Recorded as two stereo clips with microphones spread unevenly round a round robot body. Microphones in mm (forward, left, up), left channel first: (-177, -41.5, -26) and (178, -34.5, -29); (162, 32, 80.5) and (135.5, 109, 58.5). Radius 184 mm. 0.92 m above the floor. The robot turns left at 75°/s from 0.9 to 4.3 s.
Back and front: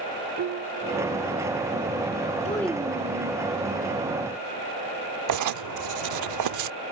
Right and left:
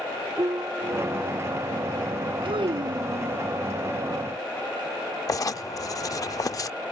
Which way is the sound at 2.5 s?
110° left.